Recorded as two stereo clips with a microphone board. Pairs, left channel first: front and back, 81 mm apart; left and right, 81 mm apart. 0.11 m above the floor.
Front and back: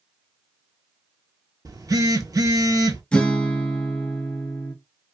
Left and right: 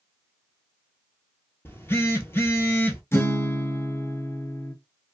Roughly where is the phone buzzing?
Behind left.